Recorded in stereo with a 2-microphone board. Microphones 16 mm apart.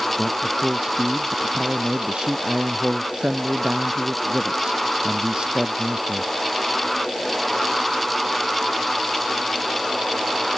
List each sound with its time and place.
0.2 s a man speaking: 85° right